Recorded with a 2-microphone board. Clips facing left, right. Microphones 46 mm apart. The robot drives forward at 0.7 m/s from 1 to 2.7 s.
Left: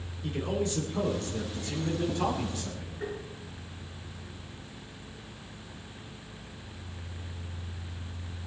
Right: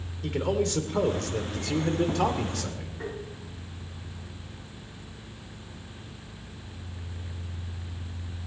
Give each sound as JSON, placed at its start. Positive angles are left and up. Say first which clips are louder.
{"t": 0.2, "sound": "a man speaking", "louder": "right 4 dB", "side_deg": -70, "distance_m": 2.5}
{"t": 3.0, "sound": "tapping", "louder": "even", "side_deg": -60, "distance_m": 9.5}